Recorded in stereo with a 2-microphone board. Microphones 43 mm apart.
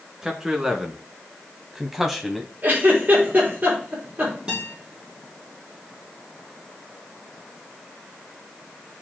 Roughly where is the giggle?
Right.